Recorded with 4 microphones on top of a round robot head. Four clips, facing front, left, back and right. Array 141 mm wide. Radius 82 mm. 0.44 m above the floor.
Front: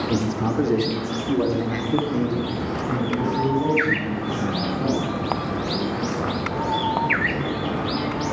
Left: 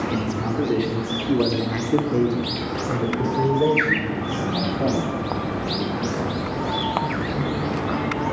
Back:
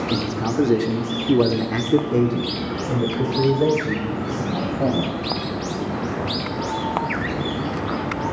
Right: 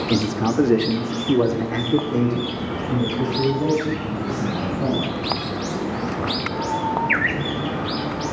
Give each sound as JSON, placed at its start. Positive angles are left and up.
{"t": 0.1, "sound": "a man speaking", "azimuth_deg": -85, "distance_m": 1.3}